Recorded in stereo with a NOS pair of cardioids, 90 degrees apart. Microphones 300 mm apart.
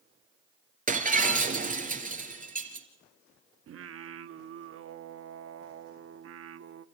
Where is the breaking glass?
30° right, 3 m.